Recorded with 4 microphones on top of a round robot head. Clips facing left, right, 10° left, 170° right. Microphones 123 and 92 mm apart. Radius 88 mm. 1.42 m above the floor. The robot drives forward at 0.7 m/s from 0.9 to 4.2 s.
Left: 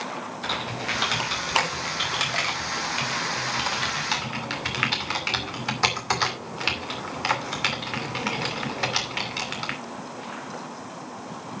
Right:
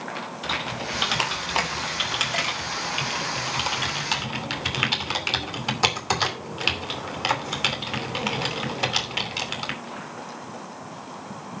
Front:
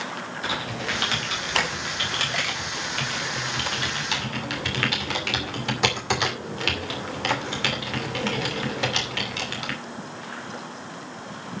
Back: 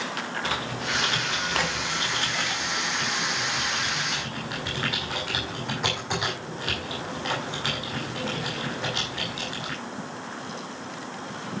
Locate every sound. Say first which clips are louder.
0.4 s typing on a keyboard: right 1 dB, front 3 dB; 10° right, 4.5 m; by 9.8 s 20° right, 2.5 m